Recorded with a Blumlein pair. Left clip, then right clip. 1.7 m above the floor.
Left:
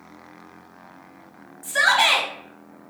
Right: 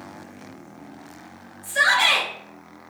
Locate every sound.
1.6 s a shout: 30° left, 0.9 m